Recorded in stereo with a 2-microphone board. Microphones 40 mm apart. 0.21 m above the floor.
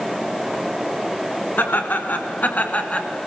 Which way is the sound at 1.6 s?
60° left (ahead or behind).